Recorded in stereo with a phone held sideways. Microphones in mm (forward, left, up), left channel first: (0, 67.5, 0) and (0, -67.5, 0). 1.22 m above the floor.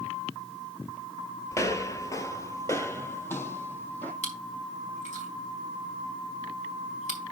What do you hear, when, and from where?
1.5 s footsteps: 20° left (ahead or behind), 1.3 m; by 4.1 s 15° left (ahead or behind), 2.5 m
4.2 s chewing: 60° left (ahead or behind), 4.5 m